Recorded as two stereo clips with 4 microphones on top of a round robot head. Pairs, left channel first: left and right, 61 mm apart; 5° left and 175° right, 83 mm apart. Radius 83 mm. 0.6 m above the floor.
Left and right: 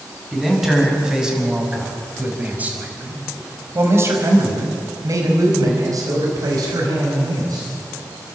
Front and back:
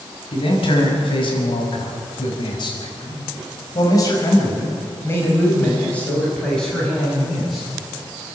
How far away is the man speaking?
About 6 m.